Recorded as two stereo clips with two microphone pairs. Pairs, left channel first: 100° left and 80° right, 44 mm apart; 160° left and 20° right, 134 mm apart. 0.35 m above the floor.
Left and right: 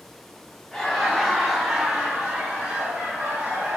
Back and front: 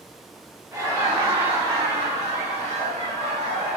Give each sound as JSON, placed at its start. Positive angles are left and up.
{"t": 0.7, "sound": "laughter", "azimuth_deg": 35, "distance_m": 1.5}